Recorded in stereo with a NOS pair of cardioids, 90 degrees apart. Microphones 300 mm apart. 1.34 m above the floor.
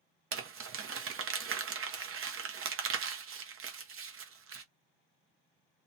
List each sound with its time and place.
0.3 s crumpling: 50° right, 0.9 m